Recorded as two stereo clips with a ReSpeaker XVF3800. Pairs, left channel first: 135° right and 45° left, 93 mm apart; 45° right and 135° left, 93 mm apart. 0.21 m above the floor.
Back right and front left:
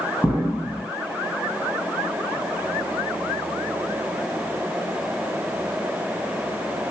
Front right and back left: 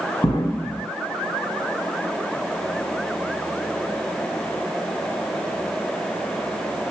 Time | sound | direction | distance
0.2 | an explosion | 50° right | 2 m